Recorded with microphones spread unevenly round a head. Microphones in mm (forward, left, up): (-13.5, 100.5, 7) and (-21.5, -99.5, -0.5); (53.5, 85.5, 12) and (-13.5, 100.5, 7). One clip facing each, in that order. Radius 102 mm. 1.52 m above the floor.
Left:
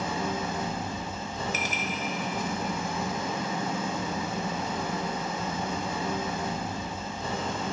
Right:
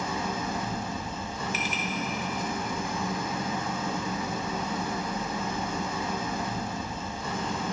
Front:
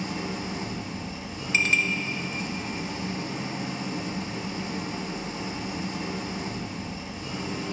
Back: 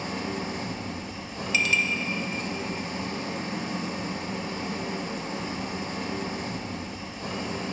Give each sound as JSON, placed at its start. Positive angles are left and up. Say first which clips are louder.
{"t": 0.0, "sound": "an engine running", "louder": "left 1 dB, back 1 dB", "azimuth_deg": 140, "distance_m": 1.8}
{"t": 1.5, "sound": "a clink", "louder": "even, front 1 dB", "azimuth_deg": 40, "distance_m": 1.4}